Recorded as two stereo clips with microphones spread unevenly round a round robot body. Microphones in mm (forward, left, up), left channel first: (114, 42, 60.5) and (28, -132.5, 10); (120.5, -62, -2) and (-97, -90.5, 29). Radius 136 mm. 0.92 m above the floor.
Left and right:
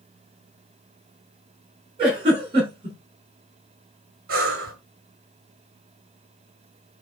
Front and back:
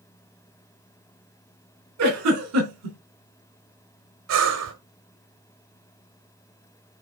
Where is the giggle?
Straight behind, 4 m.